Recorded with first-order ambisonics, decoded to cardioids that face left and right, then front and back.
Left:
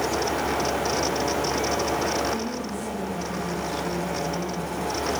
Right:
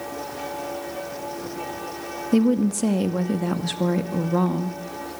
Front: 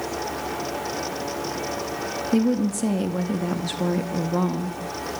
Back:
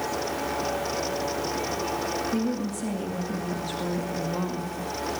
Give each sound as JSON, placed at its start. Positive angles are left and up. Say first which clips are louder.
{"t": 2.3, "sound": "a woman speaking", "louder": "right 7 dB, front 6 dB", "azimuth_deg": -65, "distance_m": 2.0}